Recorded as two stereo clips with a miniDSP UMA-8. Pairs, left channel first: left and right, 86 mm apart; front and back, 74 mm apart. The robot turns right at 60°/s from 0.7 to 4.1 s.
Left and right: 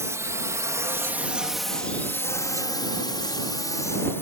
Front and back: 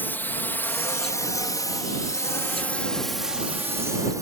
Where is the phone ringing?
I don't hear a phone ringing.